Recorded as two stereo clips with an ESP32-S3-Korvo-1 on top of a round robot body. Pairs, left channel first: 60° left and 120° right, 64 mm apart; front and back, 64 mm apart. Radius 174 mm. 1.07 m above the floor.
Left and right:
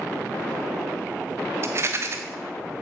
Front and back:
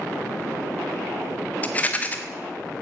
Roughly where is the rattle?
Right.